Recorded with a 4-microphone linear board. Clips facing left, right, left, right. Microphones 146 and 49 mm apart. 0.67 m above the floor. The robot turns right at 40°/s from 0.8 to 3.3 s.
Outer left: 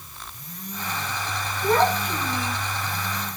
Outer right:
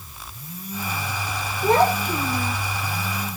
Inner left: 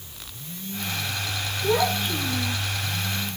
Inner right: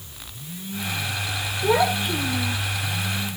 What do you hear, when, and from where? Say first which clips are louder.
1.6 s a child speaking: outer right 2 dB, inner right 3 dB; 30° right, 8 m; by 2.6 s 10° left, 8 m